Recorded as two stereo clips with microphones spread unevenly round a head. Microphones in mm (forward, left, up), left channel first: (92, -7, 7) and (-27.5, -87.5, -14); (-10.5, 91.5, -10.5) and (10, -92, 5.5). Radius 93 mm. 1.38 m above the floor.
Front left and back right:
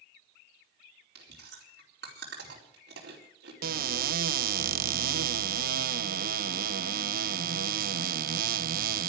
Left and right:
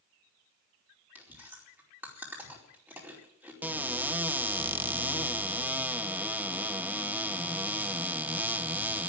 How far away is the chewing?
About 4.5 m.